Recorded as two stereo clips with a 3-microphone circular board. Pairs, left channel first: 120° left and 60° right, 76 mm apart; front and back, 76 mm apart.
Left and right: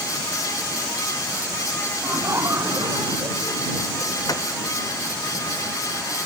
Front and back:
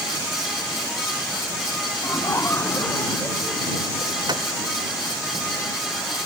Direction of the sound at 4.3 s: 160° left.